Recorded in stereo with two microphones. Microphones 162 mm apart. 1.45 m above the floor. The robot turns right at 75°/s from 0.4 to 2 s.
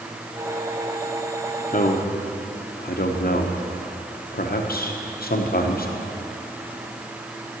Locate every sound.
1.7 s a man speaking: 55° left (ahead or behind), 0.9 m; by 5.9 s 75° left (ahead or behind), 0.9 m